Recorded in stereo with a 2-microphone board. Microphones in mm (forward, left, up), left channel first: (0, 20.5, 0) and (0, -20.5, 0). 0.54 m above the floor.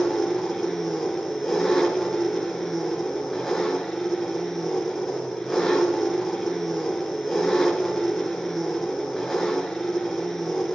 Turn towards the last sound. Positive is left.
turn(degrees=5)  # may be behind; listen again after turning